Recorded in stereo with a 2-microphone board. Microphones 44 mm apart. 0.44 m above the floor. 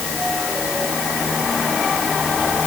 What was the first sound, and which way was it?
Only background noise.